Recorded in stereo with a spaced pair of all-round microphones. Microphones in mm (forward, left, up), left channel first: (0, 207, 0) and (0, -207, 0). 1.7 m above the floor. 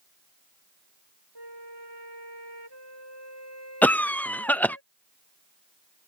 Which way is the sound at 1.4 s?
80° right.